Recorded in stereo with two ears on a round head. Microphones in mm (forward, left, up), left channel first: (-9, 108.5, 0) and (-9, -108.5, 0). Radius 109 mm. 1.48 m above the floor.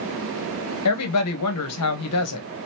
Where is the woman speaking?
70° left (ahead or behind), 1.5 m.